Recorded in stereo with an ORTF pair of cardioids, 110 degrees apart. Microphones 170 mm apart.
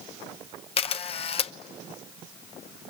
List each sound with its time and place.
0.8 s a camera shutter: 35° left, 0.8 m